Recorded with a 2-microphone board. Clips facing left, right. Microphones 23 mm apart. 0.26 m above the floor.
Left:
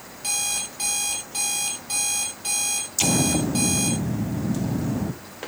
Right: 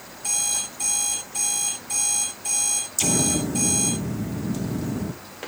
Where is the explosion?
20° left (ahead or behind), 1.2 m.